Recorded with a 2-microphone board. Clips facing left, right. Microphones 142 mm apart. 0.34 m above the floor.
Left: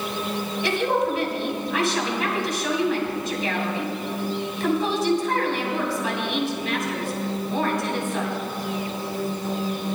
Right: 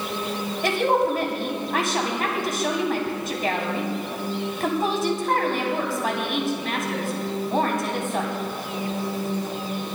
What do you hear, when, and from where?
0.6 s a woman speaking: 50° right (ahead or behind), 2.5 m